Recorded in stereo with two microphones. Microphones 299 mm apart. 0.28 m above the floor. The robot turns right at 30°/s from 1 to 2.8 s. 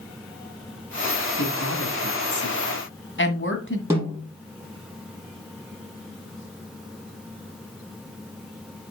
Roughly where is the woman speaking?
Left.